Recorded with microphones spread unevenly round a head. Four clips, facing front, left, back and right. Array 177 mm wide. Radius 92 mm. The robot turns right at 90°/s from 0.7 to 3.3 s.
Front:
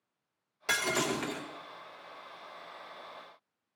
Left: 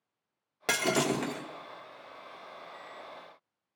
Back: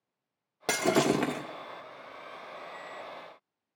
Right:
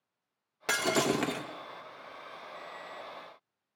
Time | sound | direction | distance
0.7 | breaking glass | 155° left | 1.0 m